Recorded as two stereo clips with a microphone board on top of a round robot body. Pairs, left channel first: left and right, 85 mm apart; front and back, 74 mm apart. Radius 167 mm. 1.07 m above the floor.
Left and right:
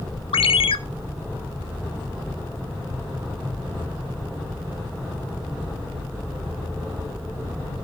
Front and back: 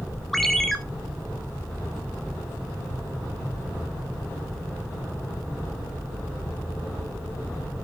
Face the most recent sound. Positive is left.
turn(degrees=85)